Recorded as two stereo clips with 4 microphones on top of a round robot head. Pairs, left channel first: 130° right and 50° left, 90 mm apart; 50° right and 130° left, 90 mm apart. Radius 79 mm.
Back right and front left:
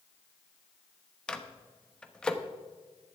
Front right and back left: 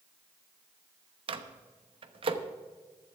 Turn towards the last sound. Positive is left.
turn(degrees=150)